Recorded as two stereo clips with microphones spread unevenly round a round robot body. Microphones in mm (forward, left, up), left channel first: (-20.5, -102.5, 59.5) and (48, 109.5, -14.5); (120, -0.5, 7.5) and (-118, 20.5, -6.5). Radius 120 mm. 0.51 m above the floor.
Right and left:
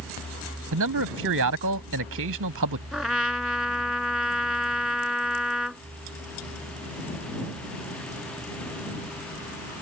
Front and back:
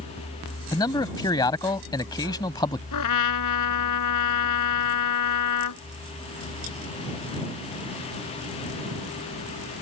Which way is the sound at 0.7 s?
70° left.